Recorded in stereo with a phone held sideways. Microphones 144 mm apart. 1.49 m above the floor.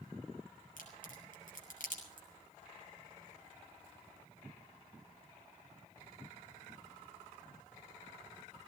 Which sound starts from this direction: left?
A crack, at 0.8 s.